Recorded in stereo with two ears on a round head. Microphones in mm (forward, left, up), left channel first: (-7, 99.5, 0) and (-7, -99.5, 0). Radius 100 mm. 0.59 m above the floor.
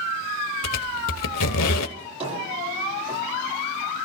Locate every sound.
0.6 s a squeak: 85° left, 1.0 m
2.0 s a drawer: 25° right (ahead or behind), 8.5 m